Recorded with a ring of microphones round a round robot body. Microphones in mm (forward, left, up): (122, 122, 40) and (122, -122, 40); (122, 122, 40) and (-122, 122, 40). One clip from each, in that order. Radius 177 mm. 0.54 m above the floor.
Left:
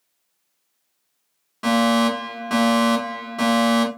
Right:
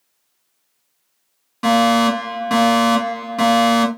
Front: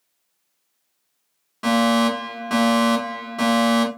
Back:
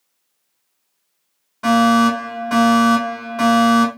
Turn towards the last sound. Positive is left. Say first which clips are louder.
# right 4 dB, back 5 dB
turn(degrees=-25)